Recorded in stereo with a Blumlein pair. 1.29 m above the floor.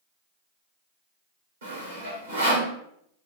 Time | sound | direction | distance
1.6 | sawing | 65° right | 1.4 m